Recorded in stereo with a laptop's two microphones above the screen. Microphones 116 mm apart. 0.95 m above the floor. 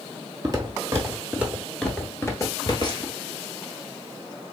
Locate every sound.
0.4 s footsteps: 35° right (ahead or behind), 1.2 m; by 3.1 s 45° left (ahead or behind), 1.2 m